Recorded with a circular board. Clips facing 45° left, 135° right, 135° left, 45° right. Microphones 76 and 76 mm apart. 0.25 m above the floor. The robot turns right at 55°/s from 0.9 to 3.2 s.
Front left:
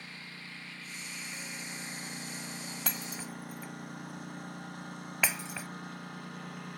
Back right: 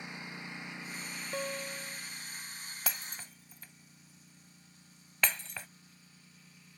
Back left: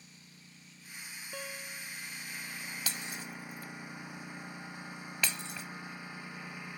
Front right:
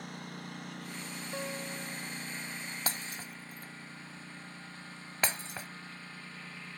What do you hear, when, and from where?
0.0 s a lawn mower: 65° right; by 6.8 s 60° left
1.3 s a guitar: 120° right; by 2.0 s 80° right
2.9 s breaking glass: 50° right; by 5.7 s 30° right